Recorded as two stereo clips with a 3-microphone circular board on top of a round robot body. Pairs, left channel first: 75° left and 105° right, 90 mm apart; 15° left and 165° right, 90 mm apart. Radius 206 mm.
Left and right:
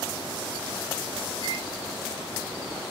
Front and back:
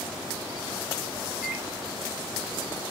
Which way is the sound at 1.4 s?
115° left.